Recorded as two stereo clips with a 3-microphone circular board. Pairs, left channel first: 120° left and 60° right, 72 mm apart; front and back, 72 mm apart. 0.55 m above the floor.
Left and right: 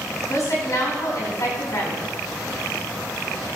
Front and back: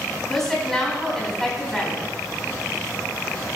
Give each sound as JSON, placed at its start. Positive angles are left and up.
{"t": 0.3, "sound": "a woman speaking", "azimuth_deg": 85, "distance_m": 4.0}